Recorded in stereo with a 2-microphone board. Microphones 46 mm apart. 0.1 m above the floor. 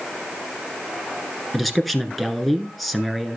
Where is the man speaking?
5° left (ahead or behind), 1.1 m.